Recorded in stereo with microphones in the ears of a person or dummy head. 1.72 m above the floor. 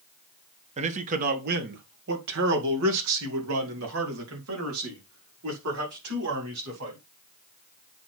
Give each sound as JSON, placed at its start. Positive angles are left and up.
{"t": 0.8, "sound": "a man speaking", "side_deg": -35, "distance_m": 1.4}